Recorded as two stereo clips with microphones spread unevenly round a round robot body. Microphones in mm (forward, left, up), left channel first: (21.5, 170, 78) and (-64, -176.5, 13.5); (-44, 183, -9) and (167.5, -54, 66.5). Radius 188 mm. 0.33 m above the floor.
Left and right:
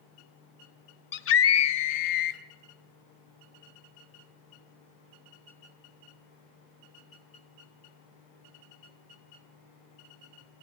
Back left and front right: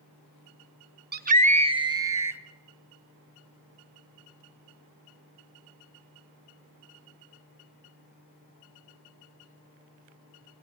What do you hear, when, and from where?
1.1 s a scream: 15° left, 1.1 m; by 2.4 s 40° left, 1.8 m